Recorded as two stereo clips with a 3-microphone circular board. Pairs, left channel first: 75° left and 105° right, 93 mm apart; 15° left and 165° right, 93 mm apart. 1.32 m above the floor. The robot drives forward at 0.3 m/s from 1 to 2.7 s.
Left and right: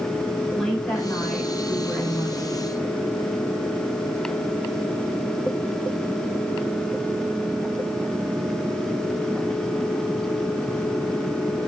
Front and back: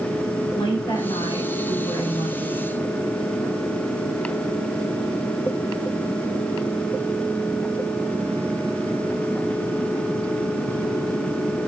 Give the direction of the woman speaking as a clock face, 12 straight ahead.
12 o'clock.